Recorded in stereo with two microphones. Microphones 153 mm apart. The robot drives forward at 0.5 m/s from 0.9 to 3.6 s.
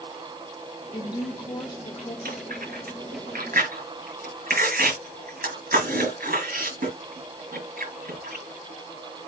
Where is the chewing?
80° right, 5.5 m; by 8.4 s 70° right (ahead or behind), 6 m.